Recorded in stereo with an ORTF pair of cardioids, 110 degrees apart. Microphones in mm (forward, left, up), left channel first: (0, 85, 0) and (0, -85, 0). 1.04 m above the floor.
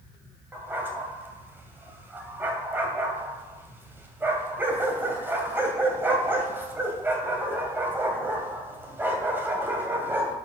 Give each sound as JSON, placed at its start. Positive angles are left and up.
{"t": 0.5, "sound": "a dog barking", "azimuth_deg": -15, "distance_m": 2.5}